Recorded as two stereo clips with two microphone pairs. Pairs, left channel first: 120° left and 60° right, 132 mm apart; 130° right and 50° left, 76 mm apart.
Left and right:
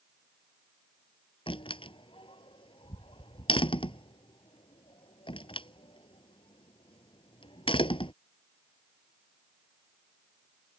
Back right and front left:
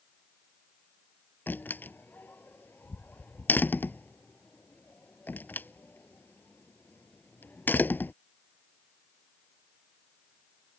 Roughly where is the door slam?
Behind.